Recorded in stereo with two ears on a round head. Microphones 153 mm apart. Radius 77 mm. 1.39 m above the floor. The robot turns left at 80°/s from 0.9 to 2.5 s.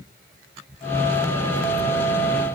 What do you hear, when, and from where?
Only background noise.